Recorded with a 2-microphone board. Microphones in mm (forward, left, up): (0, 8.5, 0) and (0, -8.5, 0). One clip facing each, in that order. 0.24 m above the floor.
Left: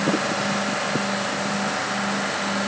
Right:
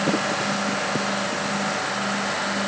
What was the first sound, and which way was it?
Only background noise.